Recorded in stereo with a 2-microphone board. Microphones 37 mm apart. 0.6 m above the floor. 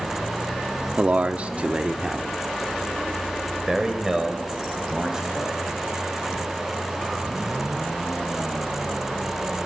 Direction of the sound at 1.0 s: 40° right (ahead or behind).